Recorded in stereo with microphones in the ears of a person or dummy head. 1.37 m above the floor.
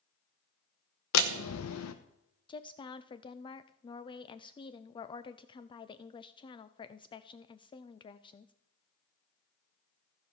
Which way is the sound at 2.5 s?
25° left (ahead or behind).